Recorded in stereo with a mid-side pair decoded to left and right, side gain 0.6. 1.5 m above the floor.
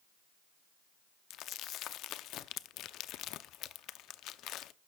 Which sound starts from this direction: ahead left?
Crumpling, at 1.3 s.